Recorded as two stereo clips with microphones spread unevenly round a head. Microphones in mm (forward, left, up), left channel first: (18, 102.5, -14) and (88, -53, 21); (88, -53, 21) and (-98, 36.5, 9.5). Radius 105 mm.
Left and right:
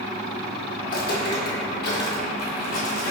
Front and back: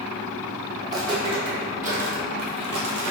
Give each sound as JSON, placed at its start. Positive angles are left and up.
{"t": 0.8, "sound": "footsteps", "azimuth_deg": 80, "distance_m": 1.6}